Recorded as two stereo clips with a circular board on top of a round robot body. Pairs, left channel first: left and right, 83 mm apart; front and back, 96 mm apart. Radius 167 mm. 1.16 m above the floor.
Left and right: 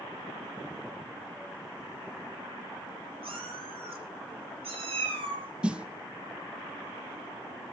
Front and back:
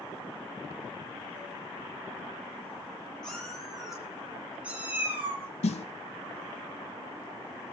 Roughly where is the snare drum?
Ahead.